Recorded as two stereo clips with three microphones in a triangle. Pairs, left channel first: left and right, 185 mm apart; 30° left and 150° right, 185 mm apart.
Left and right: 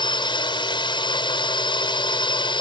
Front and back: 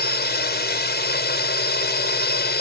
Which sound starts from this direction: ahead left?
A drone, at 0.0 s.